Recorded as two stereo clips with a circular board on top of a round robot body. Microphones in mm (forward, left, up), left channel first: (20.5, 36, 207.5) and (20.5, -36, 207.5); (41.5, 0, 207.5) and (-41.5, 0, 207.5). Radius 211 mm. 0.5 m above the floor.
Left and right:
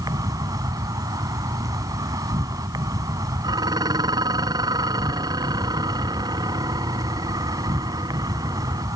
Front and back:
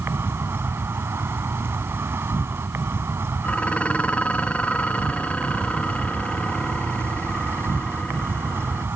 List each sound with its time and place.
0.0 s an insect: 120° right
3.4 s dishes clattering: 75° right